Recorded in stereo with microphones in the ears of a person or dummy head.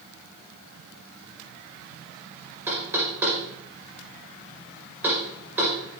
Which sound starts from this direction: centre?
Knocking, at 2.7 s.